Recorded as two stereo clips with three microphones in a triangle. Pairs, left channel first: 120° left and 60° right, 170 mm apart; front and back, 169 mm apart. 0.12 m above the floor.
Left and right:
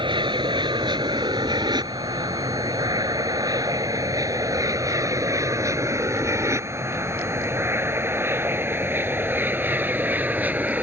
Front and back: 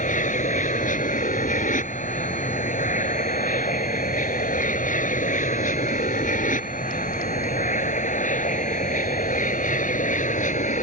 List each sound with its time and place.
0.0 s an aircraft: 10° right; by 10.8 s 20° left